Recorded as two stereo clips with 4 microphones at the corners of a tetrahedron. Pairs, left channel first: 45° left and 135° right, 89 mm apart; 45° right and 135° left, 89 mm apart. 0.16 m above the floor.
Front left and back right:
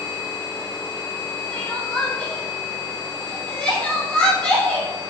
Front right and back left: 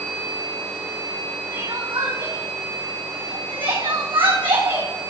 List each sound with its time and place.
1.5 s crying: 125° left, 4 m